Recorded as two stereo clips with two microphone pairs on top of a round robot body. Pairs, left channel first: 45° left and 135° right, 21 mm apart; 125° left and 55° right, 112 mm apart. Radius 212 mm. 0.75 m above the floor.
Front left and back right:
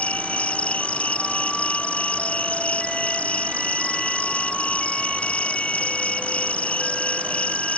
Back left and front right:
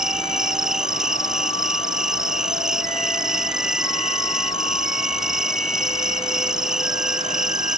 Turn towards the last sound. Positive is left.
turn(degrees=35)